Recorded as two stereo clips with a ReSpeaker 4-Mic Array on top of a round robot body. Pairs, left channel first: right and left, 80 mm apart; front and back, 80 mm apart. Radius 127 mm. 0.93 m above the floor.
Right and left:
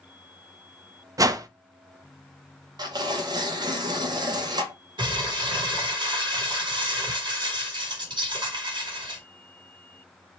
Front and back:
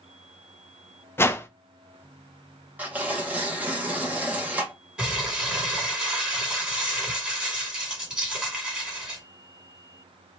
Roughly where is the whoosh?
Ahead left.